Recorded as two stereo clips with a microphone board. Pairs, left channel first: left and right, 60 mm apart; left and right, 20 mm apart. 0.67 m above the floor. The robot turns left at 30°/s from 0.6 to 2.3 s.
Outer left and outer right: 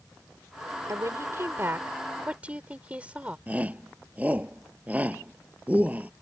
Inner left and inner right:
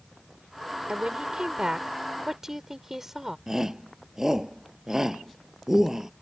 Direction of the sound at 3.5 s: 25° right (ahead or behind).